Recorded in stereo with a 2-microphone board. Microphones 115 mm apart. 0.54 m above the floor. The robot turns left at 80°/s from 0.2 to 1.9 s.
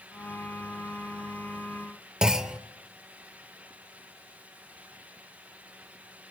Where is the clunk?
5° right (ahead or behind), 0.8 m.